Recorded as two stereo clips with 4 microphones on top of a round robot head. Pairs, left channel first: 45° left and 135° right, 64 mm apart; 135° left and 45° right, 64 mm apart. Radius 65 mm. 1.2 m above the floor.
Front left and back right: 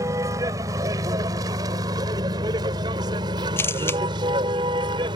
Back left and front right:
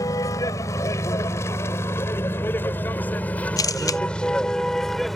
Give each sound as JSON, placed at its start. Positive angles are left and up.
{"t": 0.0, "sound": "a vehicle", "azimuth_deg": 180}
{"t": 3.6, "sound": "a camera shutter", "azimuth_deg": 105}